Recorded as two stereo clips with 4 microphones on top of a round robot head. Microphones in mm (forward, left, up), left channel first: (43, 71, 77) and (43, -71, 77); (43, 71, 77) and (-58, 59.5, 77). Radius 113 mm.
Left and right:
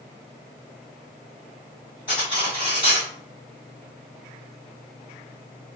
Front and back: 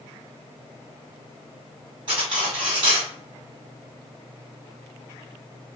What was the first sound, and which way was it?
Cutlery clinking, 155° left.